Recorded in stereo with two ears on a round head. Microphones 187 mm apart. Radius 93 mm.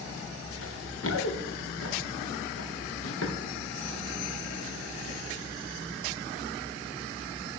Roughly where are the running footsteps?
Left.